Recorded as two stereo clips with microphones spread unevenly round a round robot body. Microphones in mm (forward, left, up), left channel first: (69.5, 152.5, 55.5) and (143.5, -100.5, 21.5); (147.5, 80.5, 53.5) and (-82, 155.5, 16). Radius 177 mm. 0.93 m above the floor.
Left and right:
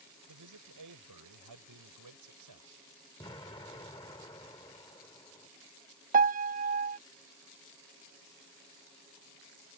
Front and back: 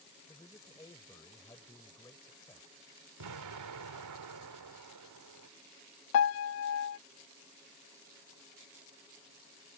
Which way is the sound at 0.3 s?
100° right.